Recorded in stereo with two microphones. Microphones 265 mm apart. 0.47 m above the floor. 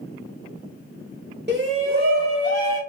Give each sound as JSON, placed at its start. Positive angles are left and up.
{"t": 1.5, "sound": "a shout", "side_deg": -40, "distance_m": 1.0}